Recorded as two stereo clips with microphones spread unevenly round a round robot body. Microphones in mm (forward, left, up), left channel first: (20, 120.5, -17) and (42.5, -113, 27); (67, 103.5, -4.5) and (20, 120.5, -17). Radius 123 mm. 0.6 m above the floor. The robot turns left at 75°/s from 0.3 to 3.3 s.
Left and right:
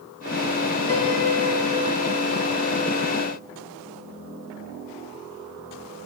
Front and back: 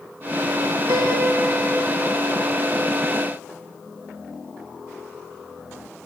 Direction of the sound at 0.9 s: 165° left.